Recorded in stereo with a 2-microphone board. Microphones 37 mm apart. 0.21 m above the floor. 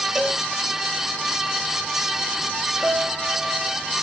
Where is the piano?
20° right (ahead or behind), 1.8 m.